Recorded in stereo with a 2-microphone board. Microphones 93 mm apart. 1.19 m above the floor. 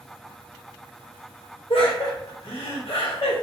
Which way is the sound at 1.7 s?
80° left.